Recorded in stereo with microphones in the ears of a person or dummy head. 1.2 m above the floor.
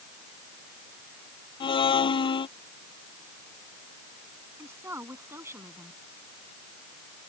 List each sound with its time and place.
1.6 s a blender: 20° left (ahead or behind)
4.6 s a woman speaking: 20° right (ahead or behind)